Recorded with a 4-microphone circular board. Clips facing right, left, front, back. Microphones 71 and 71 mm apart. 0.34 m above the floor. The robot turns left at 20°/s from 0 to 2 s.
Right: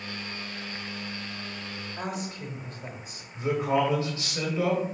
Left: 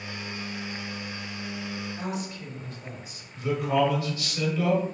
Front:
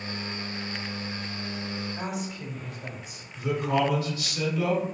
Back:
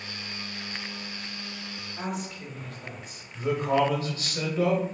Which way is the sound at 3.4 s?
145° right.